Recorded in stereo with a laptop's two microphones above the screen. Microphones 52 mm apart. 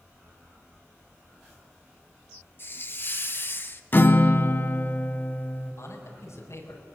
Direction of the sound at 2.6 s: 45° left (ahead or behind).